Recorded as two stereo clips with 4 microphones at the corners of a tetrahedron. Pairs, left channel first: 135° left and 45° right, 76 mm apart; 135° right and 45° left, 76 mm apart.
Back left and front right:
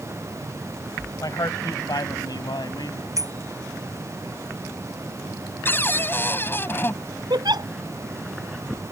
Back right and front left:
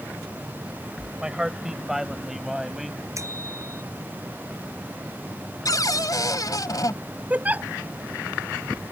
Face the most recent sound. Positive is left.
turn(degrees=-25)